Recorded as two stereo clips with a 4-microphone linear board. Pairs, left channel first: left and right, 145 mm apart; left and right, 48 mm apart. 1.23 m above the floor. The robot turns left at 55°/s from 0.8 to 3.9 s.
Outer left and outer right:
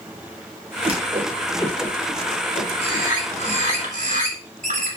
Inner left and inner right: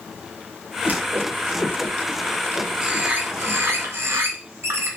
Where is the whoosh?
40° right (ahead or behind), 0.7 m; by 3.6 s 70° left (ahead or behind), 0.7 m.